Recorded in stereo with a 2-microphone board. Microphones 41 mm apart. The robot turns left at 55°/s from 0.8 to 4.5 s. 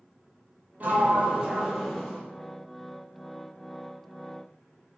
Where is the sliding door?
130° right, 0.8 m; by 2.2 s 155° left, 0.8 m.